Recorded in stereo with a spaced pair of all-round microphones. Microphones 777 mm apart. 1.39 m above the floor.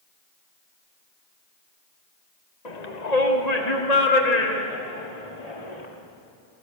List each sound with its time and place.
2.6 s a shout: 60° left (ahead or behind), 1.7 m; by 5.9 s 55° left (ahead or behind), 3.5 m